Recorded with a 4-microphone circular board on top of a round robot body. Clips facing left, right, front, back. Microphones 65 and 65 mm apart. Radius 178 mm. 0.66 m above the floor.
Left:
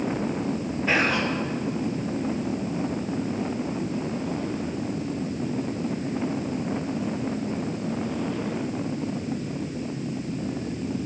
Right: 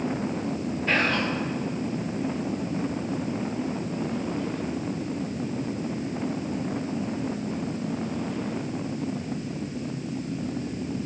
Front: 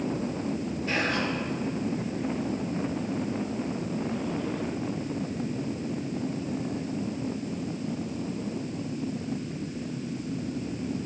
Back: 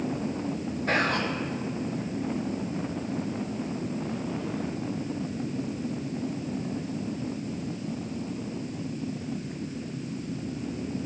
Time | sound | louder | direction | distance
0.9 | whispering | left 1 dB, back 2 dB | 170° left | 1.2 m